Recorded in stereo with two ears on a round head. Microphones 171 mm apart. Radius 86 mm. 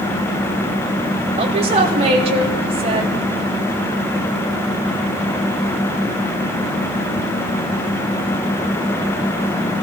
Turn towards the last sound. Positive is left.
turn(degrees=-35)  # may be behind; listen again after turning